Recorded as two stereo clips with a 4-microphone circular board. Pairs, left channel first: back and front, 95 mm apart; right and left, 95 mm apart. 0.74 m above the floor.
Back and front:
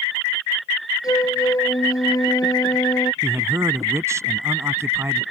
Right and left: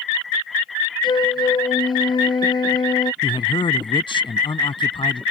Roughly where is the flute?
Behind right.